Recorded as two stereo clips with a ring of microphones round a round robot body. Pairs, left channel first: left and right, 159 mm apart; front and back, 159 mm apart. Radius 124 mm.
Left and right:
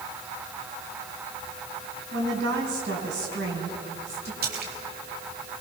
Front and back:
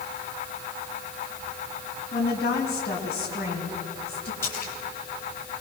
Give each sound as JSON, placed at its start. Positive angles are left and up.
{"t": 2.1, "sound": "a woman speaking", "azimuth_deg": -65, "distance_m": 5.0}
{"t": 4.4, "sound": "a splash", "azimuth_deg": -75, "distance_m": 3.0}